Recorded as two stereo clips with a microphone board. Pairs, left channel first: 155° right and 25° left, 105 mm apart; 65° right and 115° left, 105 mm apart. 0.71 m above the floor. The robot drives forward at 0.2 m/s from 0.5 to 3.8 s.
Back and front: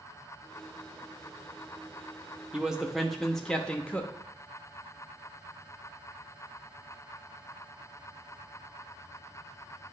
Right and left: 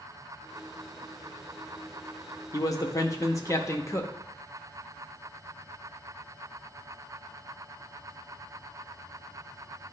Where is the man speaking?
55° right, 0.7 m; by 4.1 s 90° right, 0.7 m.